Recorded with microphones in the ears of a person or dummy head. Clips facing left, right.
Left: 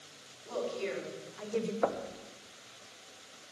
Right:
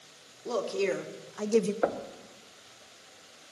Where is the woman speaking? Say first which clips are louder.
Right 6 dB; 65° right (ahead or behind), 1.4 m; by 1.7 s 60° right (ahead or behind), 0.6 m.